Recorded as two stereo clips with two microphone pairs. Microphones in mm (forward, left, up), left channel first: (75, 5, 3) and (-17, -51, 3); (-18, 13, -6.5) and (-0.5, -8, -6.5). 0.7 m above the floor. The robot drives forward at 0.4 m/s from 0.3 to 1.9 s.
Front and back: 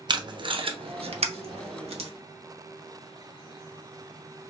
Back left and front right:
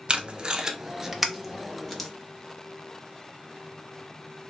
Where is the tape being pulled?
100° right, 0.5 m; by 2.1 s 145° right, 0.9 m.